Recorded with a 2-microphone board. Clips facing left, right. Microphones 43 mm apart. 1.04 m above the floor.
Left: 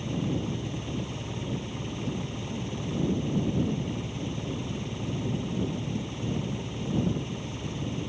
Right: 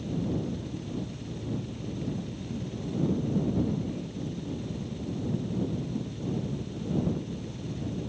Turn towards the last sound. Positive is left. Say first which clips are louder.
# left 1 dB
turn(degrees=60)  # may be behind; listen again after turning